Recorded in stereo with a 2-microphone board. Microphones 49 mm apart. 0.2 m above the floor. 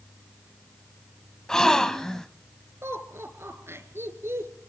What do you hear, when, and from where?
1.5 s a gasp: 10° left (ahead or behind), 1.1 m
2.8 s laughter: 60° right (ahead or behind), 3.5 m